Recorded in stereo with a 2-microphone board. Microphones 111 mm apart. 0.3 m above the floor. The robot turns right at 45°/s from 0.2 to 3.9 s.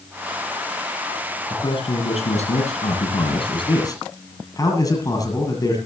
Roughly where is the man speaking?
Ahead left.